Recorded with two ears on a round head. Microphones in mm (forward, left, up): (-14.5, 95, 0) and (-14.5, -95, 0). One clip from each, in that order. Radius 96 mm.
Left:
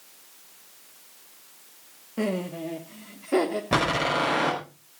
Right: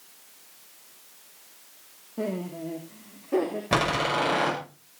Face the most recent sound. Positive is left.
turn(degrees=-15)  # may be behind; listen again after turning